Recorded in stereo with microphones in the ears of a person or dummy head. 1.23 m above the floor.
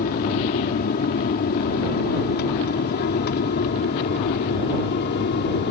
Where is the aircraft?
50° left (ahead or behind); by 5.7 s 60° left (ahead or behind).